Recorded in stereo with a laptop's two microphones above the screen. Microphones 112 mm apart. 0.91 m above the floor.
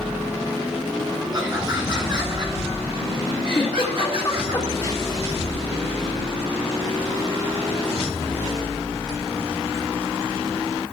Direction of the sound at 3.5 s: 30° left (ahead or behind).